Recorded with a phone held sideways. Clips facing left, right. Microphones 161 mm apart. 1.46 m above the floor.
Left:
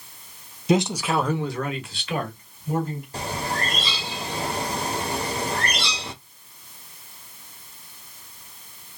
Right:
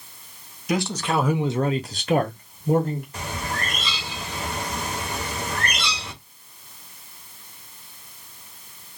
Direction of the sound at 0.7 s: 25° left (ahead or behind).